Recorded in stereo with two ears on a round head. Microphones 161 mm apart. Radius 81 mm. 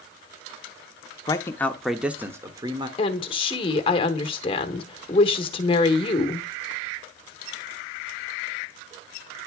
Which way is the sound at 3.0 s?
30° left (ahead or behind).